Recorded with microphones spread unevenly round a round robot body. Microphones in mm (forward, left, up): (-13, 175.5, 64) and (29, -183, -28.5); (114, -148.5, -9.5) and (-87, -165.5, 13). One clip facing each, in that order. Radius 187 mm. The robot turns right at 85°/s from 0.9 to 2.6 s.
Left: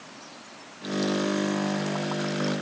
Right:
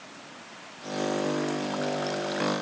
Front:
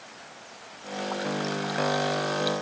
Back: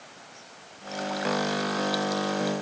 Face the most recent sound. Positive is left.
No sound to turn to.